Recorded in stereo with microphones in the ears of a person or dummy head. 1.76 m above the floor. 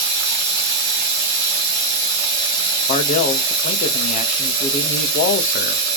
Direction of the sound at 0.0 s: 60° right (ahead or behind).